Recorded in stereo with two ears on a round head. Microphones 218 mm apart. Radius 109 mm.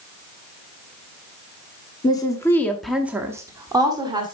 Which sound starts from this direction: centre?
A woman speaking, at 2.0 s.